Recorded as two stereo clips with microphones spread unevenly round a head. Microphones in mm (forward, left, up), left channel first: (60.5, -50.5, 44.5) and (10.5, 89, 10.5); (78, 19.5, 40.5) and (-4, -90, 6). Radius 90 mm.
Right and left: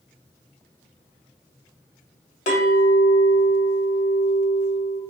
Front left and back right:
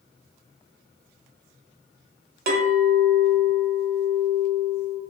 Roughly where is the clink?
Behind right.